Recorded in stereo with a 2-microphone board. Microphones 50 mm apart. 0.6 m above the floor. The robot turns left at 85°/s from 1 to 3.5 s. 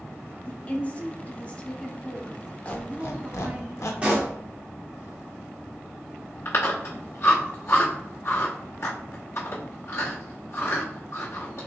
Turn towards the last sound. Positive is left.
turn(degrees=55)  # may be behind; listen again after turning